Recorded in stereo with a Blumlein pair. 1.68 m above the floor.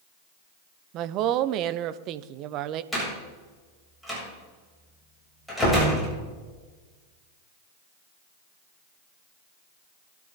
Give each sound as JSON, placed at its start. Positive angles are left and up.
{"t": 0.9, "sound": "a woman speaking", "azimuth_deg": -35, "distance_m": 0.9}
{"t": 2.9, "sound": "a door slam", "azimuth_deg": 0, "distance_m": 8.0}